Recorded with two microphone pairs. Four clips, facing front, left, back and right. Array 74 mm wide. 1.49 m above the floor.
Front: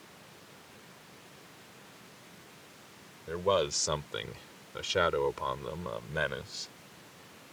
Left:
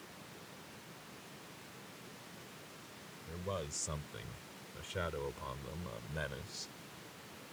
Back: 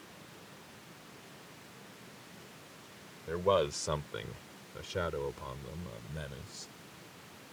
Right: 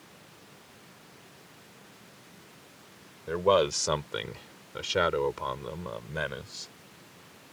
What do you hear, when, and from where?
3.3 s a man speaking: 90° right; by 6.7 s 25° right